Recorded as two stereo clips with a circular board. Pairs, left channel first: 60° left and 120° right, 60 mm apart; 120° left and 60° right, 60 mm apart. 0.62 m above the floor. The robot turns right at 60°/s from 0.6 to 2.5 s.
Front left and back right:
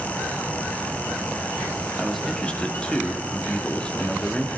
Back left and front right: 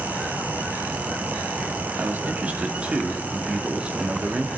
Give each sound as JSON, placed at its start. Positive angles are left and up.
{"t": 2.0, "sound": "a man speaking", "azimuth_deg": -35, "distance_m": 1.1}